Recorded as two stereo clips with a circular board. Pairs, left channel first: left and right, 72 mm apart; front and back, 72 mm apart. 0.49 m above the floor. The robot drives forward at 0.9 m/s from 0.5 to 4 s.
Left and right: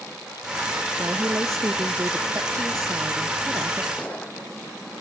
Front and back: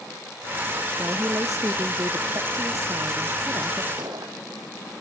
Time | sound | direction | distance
1.0 | a woman speaking | 140° right | ?
4.0 | a gunshot | 160° left | ?